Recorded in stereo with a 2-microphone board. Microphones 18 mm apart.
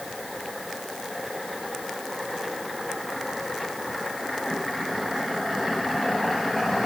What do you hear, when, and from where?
Only background noise.